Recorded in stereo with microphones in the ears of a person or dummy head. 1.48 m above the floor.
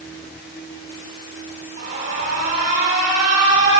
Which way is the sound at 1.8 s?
50° right (ahead or behind).